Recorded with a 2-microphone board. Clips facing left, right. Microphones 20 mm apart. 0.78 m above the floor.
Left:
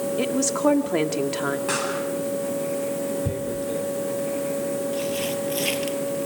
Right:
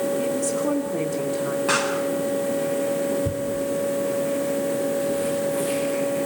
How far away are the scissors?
I don't hear scissors.